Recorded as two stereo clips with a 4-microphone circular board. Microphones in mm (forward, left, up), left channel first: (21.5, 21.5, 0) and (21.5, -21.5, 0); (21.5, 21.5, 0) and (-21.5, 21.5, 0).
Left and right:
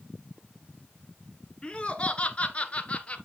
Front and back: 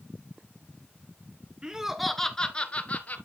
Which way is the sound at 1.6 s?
130° left.